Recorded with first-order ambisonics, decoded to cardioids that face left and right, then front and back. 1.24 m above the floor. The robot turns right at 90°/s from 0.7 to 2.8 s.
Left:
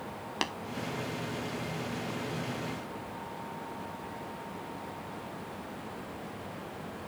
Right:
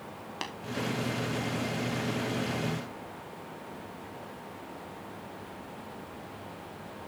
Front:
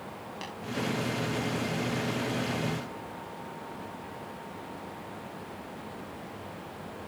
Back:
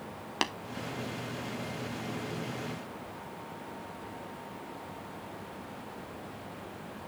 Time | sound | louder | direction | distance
0.4 | tapping | left 5 dB, back 11 dB | 160° left | 0.8 m